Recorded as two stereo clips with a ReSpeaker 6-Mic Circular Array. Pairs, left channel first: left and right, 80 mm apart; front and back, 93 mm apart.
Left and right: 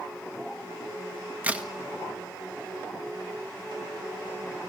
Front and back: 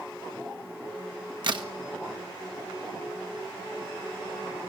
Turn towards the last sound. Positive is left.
turn(degrees=-155)